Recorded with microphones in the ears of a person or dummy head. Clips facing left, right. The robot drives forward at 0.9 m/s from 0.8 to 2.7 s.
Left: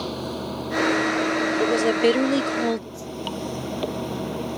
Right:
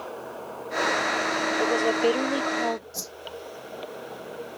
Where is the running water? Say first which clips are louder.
Left 7 dB; 55° left (ahead or behind); by 4.6 s 70° left (ahead or behind).